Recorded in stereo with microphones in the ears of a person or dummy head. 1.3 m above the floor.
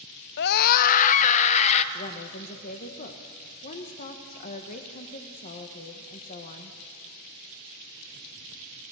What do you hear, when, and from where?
0.4 s a scream: 60° left (ahead or behind), 0.5 m; by 1.8 s 35° left (ahead or behind), 1.4 m
1.9 s a woman speaking: 45° left (ahead or behind), 1.3 m